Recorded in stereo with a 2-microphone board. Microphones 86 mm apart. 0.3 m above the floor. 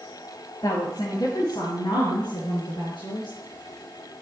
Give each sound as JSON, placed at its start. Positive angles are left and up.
{"t": 0.6, "sound": "a woman speaking", "side_deg": 50, "distance_m": 1.6}